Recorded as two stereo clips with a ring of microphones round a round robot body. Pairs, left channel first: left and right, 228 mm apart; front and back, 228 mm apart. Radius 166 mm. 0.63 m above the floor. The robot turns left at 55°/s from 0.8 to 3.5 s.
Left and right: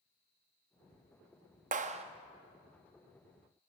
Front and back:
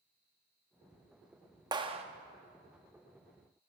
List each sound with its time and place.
1.7 s a clap: 120° right, 0.5 m; by 2.0 s 135° right, 0.5 m